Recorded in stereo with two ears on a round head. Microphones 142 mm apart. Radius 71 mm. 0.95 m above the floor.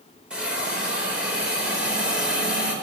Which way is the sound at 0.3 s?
5° right (ahead or behind).